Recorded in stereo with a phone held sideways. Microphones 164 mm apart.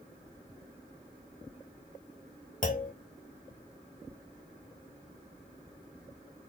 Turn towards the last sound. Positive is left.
turn(degrees=55)  # may be behind; listen again after turning